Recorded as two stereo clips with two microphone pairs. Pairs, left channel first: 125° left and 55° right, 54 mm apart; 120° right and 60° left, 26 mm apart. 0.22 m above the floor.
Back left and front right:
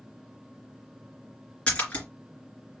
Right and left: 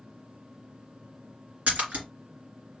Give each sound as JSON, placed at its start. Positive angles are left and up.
{"t": 1.7, "sound": "a splash", "azimuth_deg": 60, "distance_m": 2.5}